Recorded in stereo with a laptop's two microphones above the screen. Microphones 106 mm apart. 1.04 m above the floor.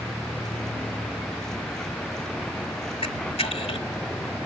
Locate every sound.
0.0 s a vehicle: 5° left (ahead or behind)
3.0 s a camera shutter: 65° left (ahead or behind)